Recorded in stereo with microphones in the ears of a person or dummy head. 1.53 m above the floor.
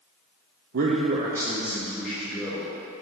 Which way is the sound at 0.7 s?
50° right (ahead or behind).